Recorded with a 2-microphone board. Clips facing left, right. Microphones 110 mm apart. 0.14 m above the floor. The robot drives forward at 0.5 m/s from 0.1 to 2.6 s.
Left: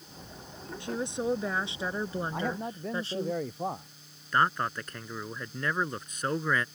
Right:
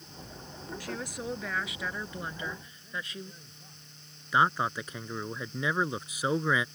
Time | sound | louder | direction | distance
0.8 | a woman speaking | left 7 dB | 25° left (ahead or behind) | ?
2.3 | a man speaking | left 8 dB | 75° left (ahead or behind) | ?
4.3 | a man speaking | right 1 dB | 10° right (ahead or behind) | ?